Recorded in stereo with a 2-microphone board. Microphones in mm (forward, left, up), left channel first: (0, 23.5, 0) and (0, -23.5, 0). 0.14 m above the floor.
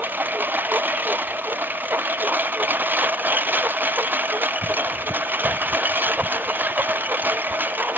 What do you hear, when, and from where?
0.0 s a lawn mower: 40° right (ahead or behind)